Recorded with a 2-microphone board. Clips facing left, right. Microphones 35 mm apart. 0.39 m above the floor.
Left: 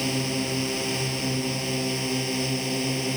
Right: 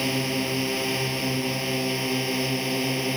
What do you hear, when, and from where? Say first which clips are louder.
0.0 s a drone: right 1 dB; 20° right (ahead or behind)